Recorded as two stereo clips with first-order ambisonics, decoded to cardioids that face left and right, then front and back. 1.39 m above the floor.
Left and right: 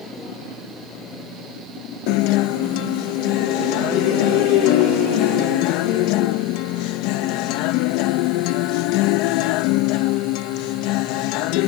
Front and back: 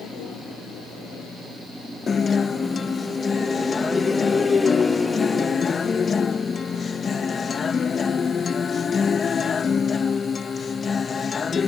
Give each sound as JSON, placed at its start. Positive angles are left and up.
{"t": 2.1, "sound": "a guitar", "azimuth_deg": 70}